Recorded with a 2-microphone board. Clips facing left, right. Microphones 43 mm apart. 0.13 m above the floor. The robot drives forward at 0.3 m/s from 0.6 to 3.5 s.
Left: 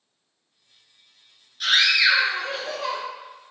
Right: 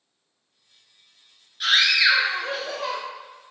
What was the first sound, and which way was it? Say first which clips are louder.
A scream: even; 10° right (ahead or behind).